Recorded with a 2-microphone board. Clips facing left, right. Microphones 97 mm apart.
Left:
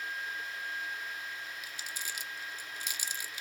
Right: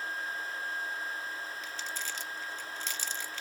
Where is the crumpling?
10° left (ahead or behind), 0.7 m.